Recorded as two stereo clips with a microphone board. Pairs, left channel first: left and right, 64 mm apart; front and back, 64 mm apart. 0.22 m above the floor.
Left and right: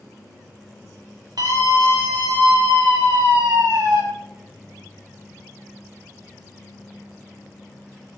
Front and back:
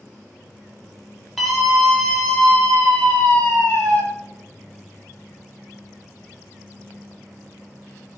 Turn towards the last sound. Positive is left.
turn(degrees=-70)